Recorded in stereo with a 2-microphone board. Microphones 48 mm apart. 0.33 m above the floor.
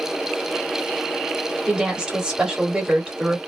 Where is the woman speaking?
15° right (ahead or behind), 1.1 m.